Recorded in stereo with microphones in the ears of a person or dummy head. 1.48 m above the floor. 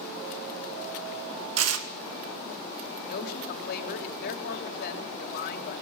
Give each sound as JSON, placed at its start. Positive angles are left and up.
{"t": 1.6, "sound": "tearing paper", "side_deg": -80, "distance_m": 2.5}
{"t": 3.1, "sound": "a man speaking", "side_deg": 55, "distance_m": 4.5}